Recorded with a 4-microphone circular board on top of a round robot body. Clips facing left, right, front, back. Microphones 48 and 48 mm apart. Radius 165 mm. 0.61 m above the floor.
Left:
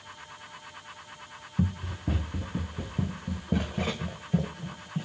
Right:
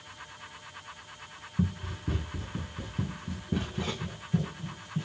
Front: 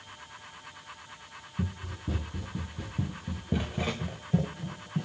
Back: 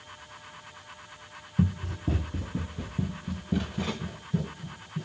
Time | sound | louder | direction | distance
1.6 | running footsteps | left 1 dB, back 8 dB | 150° left | 1.1 m